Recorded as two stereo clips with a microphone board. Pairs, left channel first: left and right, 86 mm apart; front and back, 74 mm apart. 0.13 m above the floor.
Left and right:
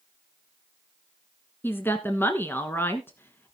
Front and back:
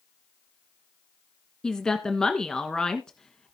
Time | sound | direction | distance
1.6 | a woman speaking | 70° left | 1.3 m